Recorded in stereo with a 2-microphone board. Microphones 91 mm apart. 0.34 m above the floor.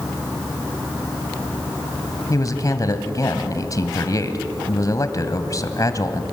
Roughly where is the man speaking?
Left.